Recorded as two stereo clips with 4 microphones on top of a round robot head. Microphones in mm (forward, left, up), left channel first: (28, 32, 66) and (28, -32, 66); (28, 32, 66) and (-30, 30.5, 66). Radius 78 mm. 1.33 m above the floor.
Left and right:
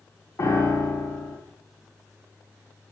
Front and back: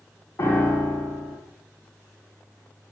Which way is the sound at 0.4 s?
40° left.